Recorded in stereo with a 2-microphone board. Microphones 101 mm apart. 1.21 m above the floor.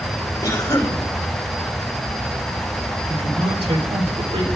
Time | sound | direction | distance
0.4 | a cough | 40° left (ahead or behind) | 3.5 m
3.1 | a man speaking | 70° right (ahead or behind) | 3.5 m